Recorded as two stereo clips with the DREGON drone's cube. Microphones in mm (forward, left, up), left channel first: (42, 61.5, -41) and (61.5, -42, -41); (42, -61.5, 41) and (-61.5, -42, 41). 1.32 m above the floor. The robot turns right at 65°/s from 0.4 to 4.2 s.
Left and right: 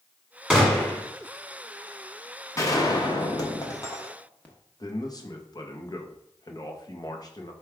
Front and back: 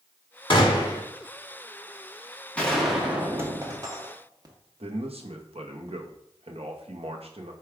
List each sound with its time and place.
0.5 s a gunshot: 5° left, 1.2 m; by 1.0 s 35° left, 1.2 m
2.6 s a gunshot: 60° left, 0.9 m; by 4.5 s 165° left, 0.9 m
4.8 s a man speaking: 150° left, 0.8 m